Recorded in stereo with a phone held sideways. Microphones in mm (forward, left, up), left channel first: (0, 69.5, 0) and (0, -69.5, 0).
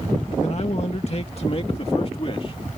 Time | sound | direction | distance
0.4 | a man speaking | 55° left (ahead or behind) | ?